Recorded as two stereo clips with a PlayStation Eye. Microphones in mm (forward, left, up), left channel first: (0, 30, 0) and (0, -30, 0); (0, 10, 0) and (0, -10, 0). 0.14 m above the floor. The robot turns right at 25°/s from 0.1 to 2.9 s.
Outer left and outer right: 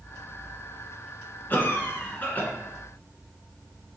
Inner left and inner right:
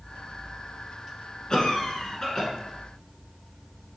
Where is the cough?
35° left (ahead or behind), 1.3 m; by 2.5 s 30° left (ahead or behind), 1.3 m.